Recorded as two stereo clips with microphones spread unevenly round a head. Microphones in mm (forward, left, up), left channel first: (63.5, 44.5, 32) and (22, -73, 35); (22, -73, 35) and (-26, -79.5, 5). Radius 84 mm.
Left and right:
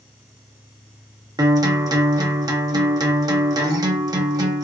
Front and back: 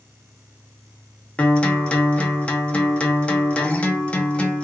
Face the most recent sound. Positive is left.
turn(degrees=-50)